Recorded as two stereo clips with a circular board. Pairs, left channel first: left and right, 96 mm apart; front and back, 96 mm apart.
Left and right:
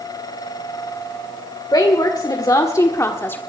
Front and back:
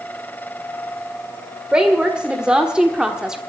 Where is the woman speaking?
105° left, 1.7 m; by 3.4 s 110° left, 1.1 m.